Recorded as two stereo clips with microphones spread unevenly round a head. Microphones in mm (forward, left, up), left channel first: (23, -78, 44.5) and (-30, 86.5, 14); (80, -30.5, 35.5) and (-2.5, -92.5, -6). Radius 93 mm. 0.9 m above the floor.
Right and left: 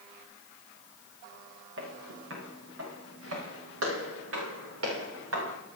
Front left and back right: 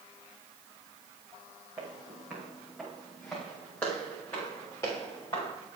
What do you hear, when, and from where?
1.8 s footsteps: 135° left, 4 m; by 5.5 s 100° left, 5 m